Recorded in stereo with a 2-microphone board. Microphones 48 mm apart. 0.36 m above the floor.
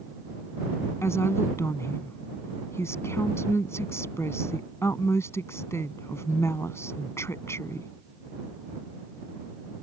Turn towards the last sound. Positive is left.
turn(degrees=70)  # may be behind; listen again after turning